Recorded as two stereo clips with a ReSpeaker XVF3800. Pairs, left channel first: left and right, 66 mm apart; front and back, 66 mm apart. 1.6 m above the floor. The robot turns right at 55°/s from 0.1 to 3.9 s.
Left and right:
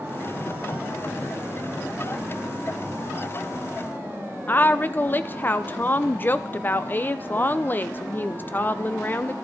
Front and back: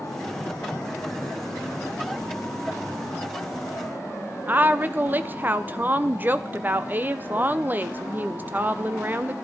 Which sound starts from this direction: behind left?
A woman speaking, at 4.5 s.